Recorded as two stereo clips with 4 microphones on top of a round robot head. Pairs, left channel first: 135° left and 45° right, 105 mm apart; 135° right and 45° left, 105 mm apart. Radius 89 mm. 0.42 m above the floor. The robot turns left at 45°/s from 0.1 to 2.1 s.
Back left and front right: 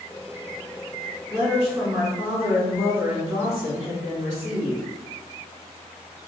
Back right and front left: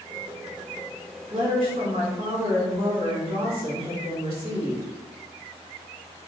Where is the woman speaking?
70° left, 1.9 m; by 4.8 s 35° left, 1.9 m.